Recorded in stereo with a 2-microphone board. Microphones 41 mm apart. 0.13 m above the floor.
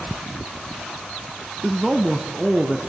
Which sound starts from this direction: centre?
A man speaking, at 1.6 s.